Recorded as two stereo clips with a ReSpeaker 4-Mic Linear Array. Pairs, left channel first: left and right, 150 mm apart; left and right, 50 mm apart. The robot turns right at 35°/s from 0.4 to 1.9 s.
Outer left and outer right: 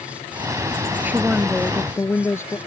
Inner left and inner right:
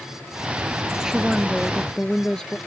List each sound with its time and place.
1.0 s a woman speaking: 15° right; by 2.6 s 15° left